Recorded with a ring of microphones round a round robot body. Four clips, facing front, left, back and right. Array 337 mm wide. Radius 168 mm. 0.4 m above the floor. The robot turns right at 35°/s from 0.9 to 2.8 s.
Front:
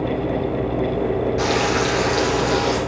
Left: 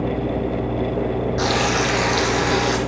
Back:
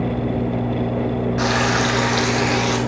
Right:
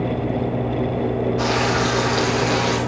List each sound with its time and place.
1.4 s frying: 105° left, 2 m; by 2.8 s 155° left, 2 m